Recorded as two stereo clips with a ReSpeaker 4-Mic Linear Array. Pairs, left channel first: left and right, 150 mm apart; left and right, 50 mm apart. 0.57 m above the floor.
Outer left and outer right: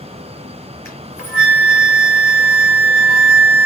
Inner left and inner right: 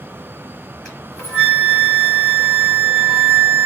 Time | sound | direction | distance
0.8 | a flute | 15° left (ahead or behind) | 4 m